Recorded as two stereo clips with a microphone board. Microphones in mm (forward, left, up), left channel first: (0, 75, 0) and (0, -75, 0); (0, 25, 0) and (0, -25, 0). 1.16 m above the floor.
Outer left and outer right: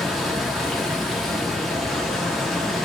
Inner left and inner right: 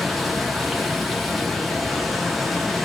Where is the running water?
Centre (ahead or behind), 0.7 m.